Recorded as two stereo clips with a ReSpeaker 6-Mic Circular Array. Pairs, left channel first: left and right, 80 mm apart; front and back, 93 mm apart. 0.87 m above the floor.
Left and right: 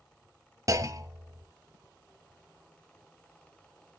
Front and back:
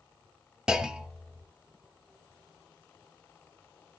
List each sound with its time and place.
0.7 s a clunk: 100° right, 0.6 m